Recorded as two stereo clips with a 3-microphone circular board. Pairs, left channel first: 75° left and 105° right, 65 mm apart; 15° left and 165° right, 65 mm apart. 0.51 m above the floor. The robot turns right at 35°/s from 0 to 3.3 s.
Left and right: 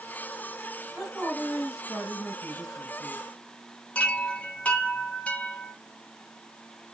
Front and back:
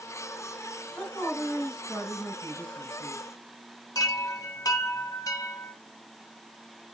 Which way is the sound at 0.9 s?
35° right.